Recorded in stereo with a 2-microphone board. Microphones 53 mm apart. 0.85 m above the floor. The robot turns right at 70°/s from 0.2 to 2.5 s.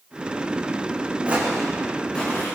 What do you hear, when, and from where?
1.3 s footsteps: 25° right (ahead or behind), 4 m; by 2.6 s 45° left (ahead or behind), 5.5 m